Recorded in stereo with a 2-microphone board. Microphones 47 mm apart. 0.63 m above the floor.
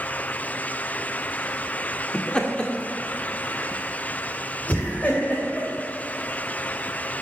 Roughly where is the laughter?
Centre.